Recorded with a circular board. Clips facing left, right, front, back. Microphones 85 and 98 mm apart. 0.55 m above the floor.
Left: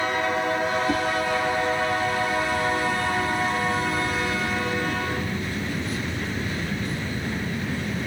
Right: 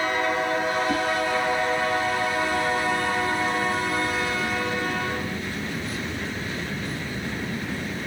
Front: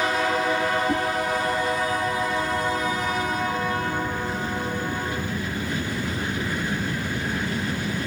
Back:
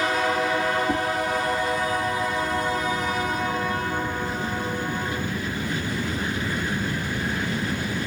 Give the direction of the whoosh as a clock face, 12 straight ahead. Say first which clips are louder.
Even, even; 9 o'clock.